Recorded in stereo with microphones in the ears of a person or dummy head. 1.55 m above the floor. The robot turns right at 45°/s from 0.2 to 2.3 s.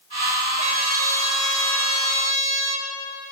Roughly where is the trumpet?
Behind right.